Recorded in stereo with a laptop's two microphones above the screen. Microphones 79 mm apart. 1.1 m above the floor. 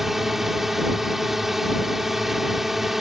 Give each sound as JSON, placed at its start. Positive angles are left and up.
{"t": 0.0, "sound": "a drone", "side_deg": -5}